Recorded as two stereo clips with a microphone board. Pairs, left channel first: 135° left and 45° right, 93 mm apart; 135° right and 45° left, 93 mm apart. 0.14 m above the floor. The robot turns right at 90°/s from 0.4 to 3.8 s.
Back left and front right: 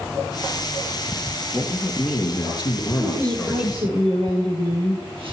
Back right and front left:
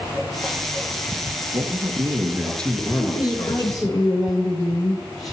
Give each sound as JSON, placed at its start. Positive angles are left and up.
{"t": 1.5, "sound": "a man speaking", "azimuth_deg": 50, "distance_m": 2.5}
{"t": 3.0, "sound": "a woman speaking", "azimuth_deg": -120, "distance_m": 9.0}